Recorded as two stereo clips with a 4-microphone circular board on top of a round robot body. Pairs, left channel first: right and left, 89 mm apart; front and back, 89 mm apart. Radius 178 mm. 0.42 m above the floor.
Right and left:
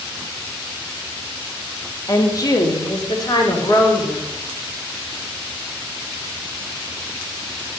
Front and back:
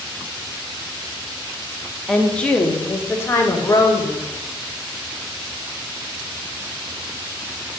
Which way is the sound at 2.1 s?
80° right.